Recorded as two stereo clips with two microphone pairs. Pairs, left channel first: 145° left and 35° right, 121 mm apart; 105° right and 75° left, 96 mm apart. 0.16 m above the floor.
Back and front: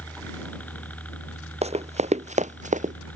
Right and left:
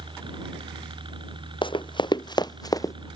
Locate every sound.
0.0 s a helicopter: 70° left
1.6 s running footsteps: 65° right; by 3.0 s 45° right